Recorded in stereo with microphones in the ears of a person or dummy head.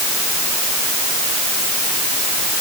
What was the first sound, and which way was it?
Only background noise.